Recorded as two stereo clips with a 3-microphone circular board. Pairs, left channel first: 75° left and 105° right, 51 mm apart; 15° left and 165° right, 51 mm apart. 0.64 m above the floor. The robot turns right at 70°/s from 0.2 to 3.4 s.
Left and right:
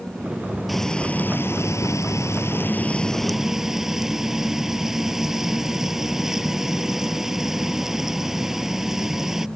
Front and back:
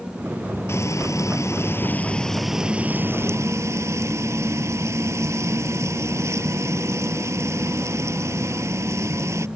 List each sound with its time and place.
0.7 s frying: 15° right; by 9.5 s 175° left